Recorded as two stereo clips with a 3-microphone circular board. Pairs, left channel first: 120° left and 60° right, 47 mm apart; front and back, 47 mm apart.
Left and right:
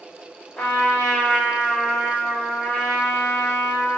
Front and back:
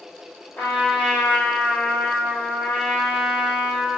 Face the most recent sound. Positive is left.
turn(degrees=50)